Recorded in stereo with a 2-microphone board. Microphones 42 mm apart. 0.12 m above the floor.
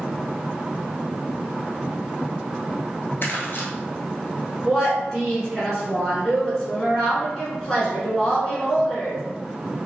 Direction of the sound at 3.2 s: 50° left (ahead or behind).